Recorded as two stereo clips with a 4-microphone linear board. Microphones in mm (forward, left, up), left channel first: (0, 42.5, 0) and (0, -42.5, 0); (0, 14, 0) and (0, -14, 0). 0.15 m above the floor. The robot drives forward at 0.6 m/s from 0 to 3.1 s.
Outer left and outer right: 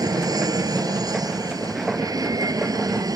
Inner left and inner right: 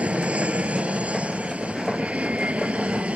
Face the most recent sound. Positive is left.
turn(degrees=-45)  # may be behind; listen again after turning